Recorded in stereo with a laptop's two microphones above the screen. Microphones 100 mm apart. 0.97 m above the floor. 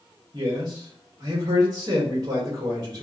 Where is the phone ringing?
I don't hear a phone ringing.